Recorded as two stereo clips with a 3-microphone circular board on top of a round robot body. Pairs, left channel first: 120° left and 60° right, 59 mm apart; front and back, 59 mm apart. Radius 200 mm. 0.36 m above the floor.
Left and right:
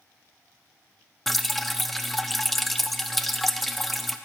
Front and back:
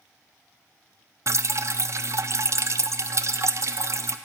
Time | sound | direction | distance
1.3 | dripping | 155° right | 0.6 m